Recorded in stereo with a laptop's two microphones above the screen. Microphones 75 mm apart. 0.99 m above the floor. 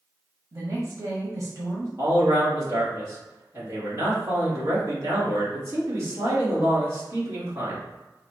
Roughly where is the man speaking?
Right.